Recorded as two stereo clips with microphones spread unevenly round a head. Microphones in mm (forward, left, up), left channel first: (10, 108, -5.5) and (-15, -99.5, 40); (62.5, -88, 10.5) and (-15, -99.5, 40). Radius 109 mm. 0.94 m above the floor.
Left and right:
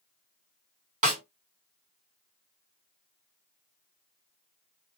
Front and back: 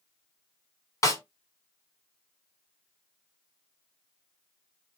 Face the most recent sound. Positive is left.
turn(degrees=-35)